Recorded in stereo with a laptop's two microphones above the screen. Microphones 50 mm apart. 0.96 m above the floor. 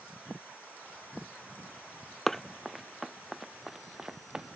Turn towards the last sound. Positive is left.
turn(degrees=-15)  # may be behind; listen again after turning